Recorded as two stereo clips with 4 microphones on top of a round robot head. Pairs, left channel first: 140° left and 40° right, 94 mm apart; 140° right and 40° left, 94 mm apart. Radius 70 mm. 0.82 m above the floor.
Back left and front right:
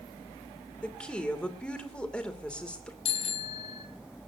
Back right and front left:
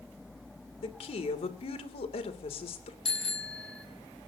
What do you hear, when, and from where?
0.8 s a woman speaking: 140° right, 2.5 m
3.0 s a bicycle bell: 135° left, 2 m